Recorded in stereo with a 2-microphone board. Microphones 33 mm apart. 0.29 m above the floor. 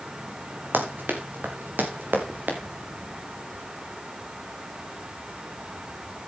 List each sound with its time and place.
0.7 s running footsteps: 85° right, 4 m; by 2.6 s 65° right (ahead or behind), 4.5 m